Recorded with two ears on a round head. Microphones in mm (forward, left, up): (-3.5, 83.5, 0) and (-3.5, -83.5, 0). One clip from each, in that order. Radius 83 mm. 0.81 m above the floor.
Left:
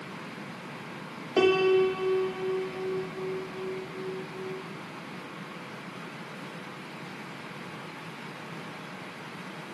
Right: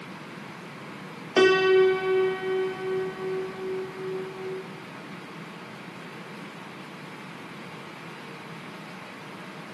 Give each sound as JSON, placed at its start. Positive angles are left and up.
{"t": 1.4, "sound": "a piano", "side_deg": -40, "distance_m": 1.2}